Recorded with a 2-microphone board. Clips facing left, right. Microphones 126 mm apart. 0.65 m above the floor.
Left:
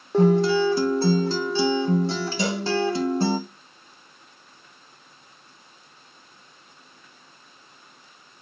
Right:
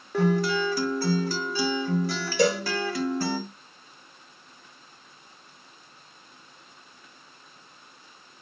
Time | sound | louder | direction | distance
0.1 | a guitar | left 6 dB | 25° left (ahead or behind) | 0.6 m
2.4 | a cowbell | right 7 dB | 65° right (ahead or behind) | 3 m